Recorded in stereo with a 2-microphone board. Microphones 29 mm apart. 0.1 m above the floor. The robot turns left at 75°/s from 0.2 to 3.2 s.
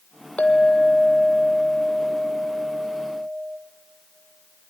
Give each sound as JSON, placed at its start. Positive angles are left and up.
{"t": 0.4, "sound": "a clink", "azimuth_deg": 75, "distance_m": 1.7}